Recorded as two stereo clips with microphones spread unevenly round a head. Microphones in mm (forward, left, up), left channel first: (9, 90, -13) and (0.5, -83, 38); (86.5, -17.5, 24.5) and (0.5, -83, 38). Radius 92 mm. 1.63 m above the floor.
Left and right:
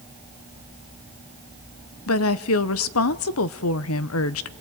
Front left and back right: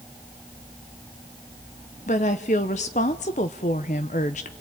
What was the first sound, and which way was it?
A woman speaking, 85° left.